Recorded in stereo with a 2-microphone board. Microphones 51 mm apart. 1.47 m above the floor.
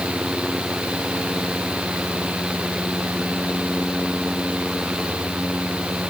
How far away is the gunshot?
I don't hear a gunshot.